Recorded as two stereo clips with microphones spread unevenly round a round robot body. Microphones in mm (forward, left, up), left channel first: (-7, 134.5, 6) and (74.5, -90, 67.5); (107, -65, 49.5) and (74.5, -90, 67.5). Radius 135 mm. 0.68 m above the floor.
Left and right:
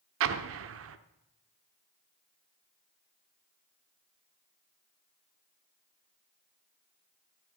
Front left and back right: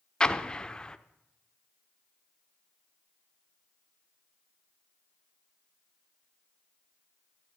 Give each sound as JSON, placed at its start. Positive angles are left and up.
{"t": 0.2, "sound": "an explosion", "azimuth_deg": -40, "distance_m": 0.7}